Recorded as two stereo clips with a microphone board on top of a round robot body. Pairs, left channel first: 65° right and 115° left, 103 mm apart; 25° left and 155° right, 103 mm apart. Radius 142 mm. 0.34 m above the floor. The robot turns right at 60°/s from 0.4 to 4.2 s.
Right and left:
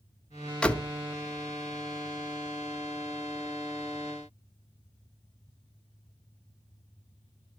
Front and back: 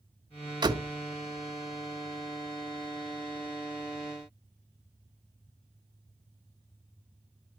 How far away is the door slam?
About 1.1 m.